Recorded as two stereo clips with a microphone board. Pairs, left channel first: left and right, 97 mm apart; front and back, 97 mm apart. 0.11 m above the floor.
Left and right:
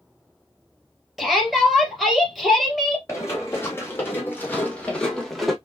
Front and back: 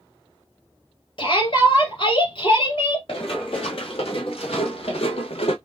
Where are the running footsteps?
25° left, 3.5 m; by 5.5 s straight ahead, 1.5 m.